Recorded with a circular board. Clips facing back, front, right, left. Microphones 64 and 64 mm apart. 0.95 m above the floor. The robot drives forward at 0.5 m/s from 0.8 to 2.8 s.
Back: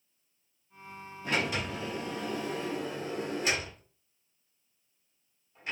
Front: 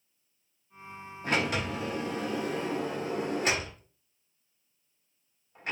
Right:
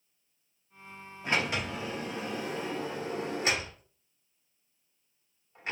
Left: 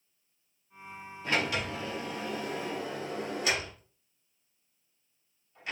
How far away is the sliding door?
About 2 m.